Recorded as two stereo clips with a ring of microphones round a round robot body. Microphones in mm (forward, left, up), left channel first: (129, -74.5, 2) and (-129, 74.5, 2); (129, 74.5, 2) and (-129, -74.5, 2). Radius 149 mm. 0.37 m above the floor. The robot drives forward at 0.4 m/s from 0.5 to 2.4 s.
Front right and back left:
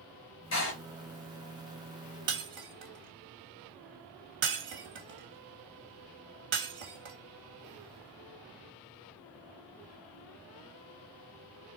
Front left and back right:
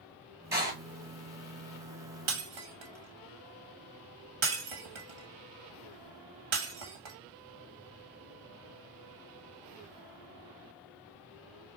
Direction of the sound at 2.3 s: 155° right.